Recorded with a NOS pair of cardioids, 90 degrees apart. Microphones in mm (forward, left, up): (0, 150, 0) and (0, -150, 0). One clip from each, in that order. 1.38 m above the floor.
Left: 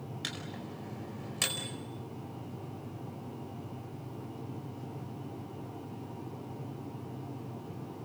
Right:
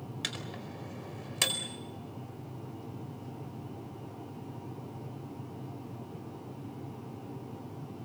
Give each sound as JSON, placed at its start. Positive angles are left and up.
{"t": 0.2, "sound": "a microwave", "azimuth_deg": -40, "distance_m": 4.5}